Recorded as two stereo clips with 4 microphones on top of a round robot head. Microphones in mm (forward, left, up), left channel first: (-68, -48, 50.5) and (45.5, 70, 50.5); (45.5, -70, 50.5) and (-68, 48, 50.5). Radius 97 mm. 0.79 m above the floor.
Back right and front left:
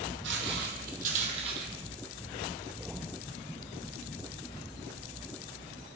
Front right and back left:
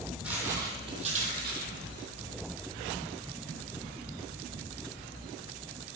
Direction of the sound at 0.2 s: 50° left.